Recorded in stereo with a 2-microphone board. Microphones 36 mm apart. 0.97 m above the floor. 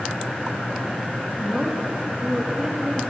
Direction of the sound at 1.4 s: 10° right (ahead or behind).